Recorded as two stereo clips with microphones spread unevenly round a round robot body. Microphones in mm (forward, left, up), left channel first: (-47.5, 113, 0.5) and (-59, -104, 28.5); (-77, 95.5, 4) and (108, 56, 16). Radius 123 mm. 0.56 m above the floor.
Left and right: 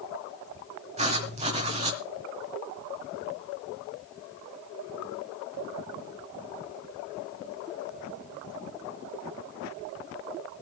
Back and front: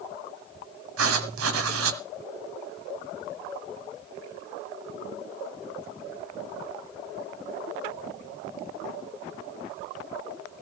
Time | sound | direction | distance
1.0 | writing | 25° right | 1.6 m